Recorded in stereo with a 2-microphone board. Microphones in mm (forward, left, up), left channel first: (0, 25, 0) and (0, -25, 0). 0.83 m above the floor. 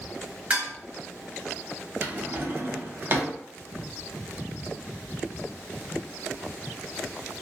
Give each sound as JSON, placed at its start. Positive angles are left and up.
{"t": 0.5, "sound": "dishes clattering", "side_deg": -25, "distance_m": 1.9}
{"t": 2.0, "sound": "a drawer", "side_deg": -40, "distance_m": 0.6}